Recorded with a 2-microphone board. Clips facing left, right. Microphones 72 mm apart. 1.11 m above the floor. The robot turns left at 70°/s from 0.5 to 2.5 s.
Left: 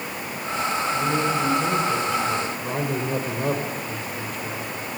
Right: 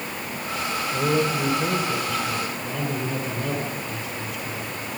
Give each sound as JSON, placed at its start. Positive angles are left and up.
{"t": 0.9, "sound": "a man speaking", "azimuth_deg": -110, "distance_m": 4.0}